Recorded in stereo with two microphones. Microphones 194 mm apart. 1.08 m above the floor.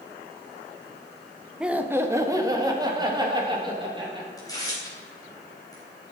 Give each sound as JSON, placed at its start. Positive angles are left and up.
{"t": 1.6, "sound": "laughter", "side_deg": -5, "distance_m": 1.2}
{"t": 4.4, "sound": "tearing paper", "side_deg": 20, "distance_m": 4.0}